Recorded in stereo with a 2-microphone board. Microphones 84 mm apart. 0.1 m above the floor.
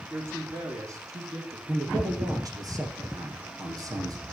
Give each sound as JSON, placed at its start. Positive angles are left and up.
{"t": 0.1, "sound": "a man speaking", "side_deg": -30, "distance_m": 4.0}
{"t": 1.7, "sound": "a man speaking", "side_deg": -45, "distance_m": 5.5}